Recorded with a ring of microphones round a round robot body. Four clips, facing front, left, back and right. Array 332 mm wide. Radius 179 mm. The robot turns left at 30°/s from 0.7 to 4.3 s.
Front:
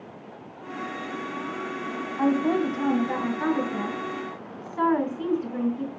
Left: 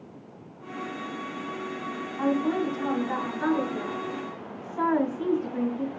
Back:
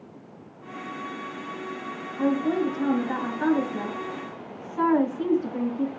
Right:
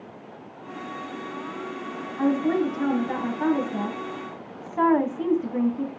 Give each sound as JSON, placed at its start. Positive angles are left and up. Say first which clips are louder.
{"t": 2.2, "sound": "a woman speaking", "louder": "right 3 dB, front 1 dB", "azimuth_deg": -15, "distance_m": 2.5}